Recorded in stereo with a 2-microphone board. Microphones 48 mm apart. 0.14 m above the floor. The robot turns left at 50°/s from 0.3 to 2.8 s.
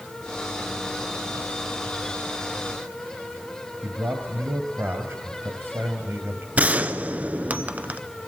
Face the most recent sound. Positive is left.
turn(degrees=-30)  # may be behind; listen again after turning